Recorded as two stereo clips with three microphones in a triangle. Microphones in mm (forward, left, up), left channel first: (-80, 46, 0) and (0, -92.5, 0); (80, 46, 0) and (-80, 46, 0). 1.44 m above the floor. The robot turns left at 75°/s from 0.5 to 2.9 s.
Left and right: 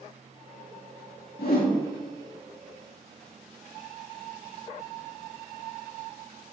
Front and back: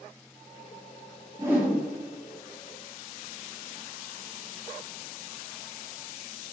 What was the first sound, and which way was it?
A whoosh, 110° left.